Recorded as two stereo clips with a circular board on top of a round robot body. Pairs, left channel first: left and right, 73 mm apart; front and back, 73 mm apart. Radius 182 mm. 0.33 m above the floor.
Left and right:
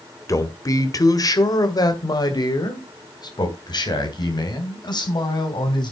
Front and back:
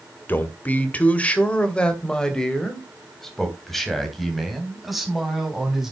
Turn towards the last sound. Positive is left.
turn(degrees=95)